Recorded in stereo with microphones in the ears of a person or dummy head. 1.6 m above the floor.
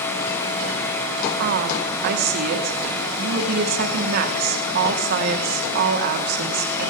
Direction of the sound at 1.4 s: 60° right (ahead or behind).